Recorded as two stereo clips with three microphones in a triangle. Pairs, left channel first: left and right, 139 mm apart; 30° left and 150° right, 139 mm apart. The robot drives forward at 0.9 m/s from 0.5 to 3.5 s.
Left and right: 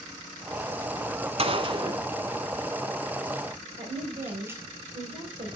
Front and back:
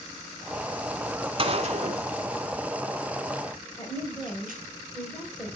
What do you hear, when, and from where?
1.4 s a gunshot: 115° right, 0.9 m; by 4.6 s 165° right, 2.5 m
3.8 s a woman speaking: 45° right, 5 m